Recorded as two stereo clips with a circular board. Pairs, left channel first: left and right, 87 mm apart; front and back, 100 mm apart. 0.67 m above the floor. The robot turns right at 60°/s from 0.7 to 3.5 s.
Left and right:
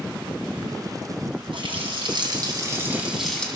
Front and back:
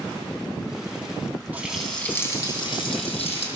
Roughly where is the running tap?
Right.